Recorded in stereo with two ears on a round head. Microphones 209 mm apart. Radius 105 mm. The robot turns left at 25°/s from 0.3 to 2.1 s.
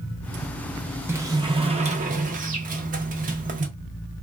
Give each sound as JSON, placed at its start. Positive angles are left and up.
{"t": 1.1, "sound": "a sliding door", "side_deg": -10, "distance_m": 0.6}